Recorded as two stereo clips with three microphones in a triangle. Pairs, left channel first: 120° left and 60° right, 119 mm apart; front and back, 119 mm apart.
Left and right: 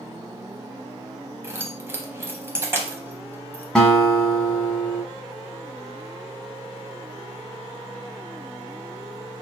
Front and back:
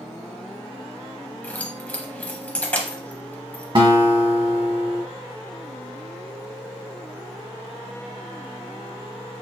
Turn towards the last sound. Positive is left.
turn(degrees=-155)